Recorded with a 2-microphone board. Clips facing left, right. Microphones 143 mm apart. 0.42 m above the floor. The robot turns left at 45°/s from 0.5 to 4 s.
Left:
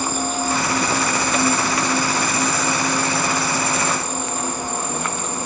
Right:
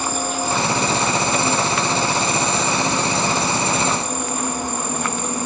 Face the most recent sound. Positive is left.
turn(degrees=-15)